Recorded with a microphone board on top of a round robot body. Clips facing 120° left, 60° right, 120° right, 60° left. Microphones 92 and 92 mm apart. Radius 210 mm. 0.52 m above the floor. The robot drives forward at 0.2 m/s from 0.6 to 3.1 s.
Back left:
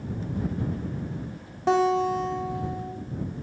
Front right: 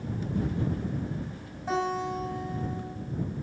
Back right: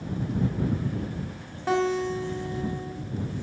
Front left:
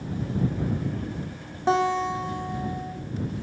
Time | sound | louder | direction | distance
1.7 | a guitar | back left 8 dB, front left 2 dB | 130° left | 1.0 m